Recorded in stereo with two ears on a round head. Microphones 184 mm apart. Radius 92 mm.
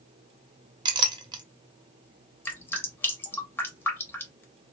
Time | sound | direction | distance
0.8 | a clink | 20° right (ahead or behind) | 0.5 m
2.5 | dripping | 10° left (ahead or behind) | 0.7 m